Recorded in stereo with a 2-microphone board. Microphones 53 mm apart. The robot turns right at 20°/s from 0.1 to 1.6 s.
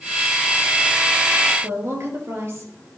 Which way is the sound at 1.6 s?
60° right (ahead or behind).